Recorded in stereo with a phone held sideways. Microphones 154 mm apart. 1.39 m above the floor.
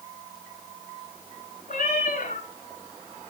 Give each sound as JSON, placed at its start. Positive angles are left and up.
{"t": 1.7, "sound": "a cat meowing", "side_deg": 50, "distance_m": 4.0}